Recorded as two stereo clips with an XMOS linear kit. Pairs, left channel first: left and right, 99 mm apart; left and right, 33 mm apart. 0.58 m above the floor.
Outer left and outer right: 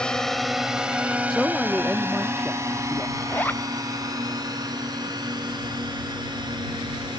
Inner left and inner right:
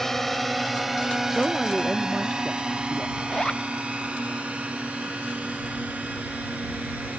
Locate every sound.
0.0 s a drone: 10° left (ahead or behind); by 7.2 s 45° right (ahead or behind)
1.3 s a man speaking: centre (ahead or behind)
3.2 s a zipper: 20° left (ahead or behind)